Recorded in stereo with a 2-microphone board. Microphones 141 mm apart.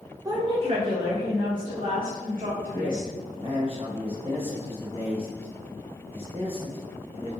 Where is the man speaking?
45° right (ahead or behind), 1.1 m.